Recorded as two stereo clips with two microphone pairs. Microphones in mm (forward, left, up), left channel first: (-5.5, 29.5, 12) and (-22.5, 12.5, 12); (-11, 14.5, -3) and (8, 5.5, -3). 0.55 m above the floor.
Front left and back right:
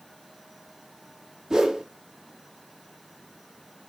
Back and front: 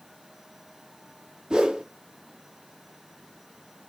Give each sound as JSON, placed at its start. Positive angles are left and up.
{"t": 1.5, "sound": "a whoosh", "azimuth_deg": -70, "distance_m": 0.6}